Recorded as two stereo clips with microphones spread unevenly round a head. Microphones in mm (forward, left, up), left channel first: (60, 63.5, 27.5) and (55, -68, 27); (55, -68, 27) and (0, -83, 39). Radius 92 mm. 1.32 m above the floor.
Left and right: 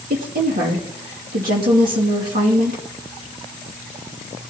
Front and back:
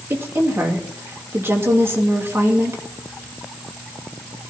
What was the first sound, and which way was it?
A woman speaking, 120° right.